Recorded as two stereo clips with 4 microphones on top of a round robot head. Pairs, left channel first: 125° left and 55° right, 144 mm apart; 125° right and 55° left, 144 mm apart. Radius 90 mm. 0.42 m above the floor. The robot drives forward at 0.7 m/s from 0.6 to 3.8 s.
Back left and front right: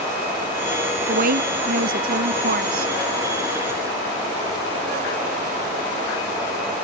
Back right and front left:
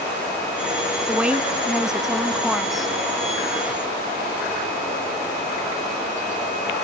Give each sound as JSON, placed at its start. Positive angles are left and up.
{"t": 1.1, "sound": "a woman speaking", "azimuth_deg": -25}